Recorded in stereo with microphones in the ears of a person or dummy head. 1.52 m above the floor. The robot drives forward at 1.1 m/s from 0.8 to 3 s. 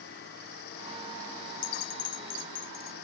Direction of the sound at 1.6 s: 85° left.